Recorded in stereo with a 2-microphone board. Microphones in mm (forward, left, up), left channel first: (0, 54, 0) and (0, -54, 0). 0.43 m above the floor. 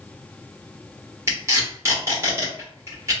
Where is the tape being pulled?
25° right (ahead or behind), 1.3 m.